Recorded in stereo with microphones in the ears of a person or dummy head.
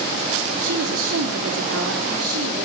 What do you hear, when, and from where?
0.6 s a woman speaking: 75° right (ahead or behind), 3.5 m; by 2.7 s 85° right, 5 m